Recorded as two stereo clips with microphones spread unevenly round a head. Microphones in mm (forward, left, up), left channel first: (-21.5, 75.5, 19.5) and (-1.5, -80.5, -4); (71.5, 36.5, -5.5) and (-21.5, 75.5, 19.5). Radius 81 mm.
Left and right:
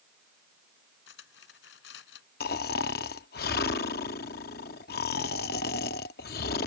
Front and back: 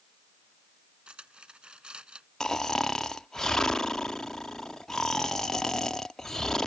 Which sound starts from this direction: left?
Cutlery clinking, at 1.1 s.